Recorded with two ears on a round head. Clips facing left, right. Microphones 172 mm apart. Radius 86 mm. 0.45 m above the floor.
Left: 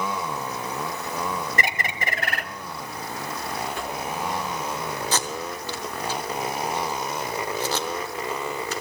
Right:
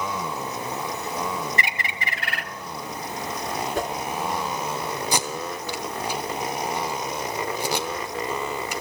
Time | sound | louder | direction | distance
1.6 | a bird | left 2 dB | 40° left (ahead or behind) | 1.0 m
3.8 | a whoosh | right 5 dB | 40° right (ahead or behind) | 1.6 m
5.1 | tape being pulled | right 1 dB | 15° right (ahead or behind) | 1.0 m